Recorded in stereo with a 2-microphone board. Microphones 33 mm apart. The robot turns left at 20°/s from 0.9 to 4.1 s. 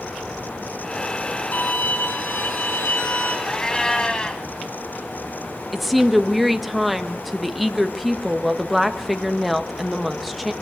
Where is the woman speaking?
5° right (ahead or behind), 1.4 m.